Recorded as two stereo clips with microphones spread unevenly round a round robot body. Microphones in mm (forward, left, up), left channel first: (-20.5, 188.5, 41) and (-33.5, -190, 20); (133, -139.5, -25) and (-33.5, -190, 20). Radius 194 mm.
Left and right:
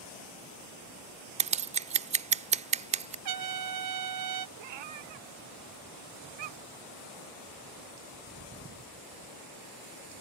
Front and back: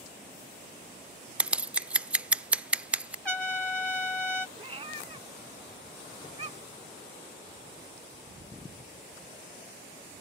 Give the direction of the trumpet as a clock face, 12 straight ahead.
2 o'clock.